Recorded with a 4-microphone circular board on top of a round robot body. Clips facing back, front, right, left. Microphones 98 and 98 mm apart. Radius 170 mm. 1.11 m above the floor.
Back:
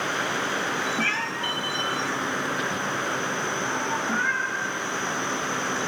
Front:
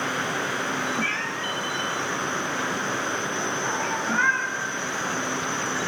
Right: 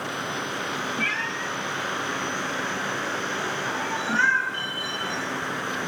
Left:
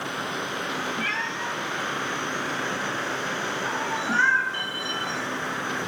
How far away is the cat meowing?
About 1.2 m.